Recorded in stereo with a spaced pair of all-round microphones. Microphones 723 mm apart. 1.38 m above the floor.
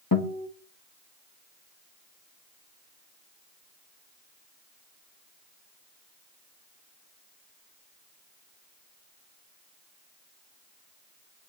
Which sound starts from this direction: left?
A guitar, at 0.1 s.